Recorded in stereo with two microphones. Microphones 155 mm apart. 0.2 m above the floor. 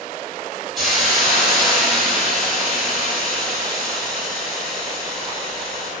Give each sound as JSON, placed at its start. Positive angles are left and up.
{"t": 0.8, "sound": "a hiss", "side_deg": 0, "distance_m": 1.3}